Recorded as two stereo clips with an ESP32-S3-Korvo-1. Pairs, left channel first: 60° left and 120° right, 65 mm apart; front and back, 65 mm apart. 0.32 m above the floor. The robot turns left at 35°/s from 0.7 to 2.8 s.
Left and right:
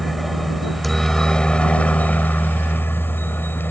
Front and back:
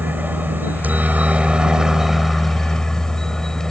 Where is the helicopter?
150° left; by 3.7 s 75° left.